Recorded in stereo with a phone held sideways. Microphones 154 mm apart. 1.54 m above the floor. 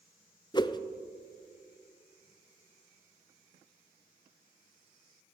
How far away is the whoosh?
About 0.5 m.